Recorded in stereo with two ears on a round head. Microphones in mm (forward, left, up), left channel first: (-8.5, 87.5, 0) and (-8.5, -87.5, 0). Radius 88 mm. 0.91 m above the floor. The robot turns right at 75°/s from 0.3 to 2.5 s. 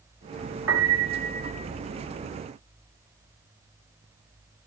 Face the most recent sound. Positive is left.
turn(degrees=45)